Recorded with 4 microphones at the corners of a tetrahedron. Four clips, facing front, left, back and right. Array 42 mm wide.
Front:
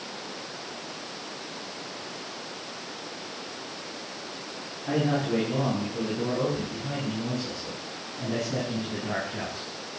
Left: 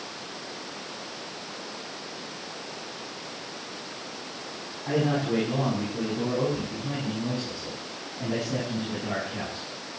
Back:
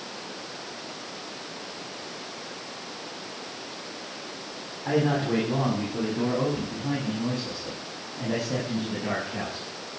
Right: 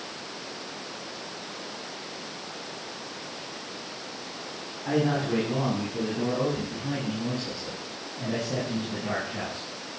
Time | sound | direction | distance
4.8 | a man speaking | 175° right | 8.5 m